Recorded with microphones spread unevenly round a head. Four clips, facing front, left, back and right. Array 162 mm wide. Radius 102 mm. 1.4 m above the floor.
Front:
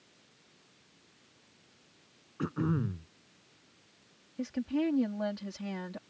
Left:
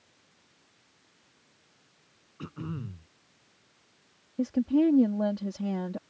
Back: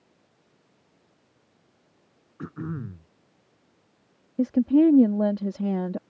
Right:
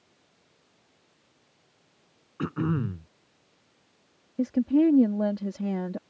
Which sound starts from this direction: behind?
A woman speaking, at 4.4 s.